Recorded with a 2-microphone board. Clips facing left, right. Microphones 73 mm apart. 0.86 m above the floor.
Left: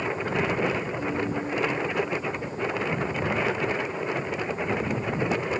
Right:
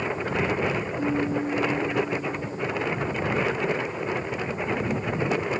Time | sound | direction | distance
1.0 | a piano | 20° right (ahead or behind) | ?